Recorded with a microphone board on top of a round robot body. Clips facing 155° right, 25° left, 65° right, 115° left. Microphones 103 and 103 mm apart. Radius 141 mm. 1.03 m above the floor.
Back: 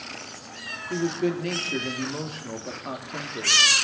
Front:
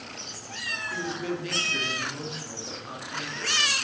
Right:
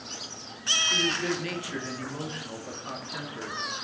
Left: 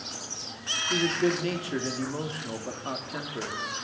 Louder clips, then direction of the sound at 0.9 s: Back 7 dB, left 5 dB; 170° left.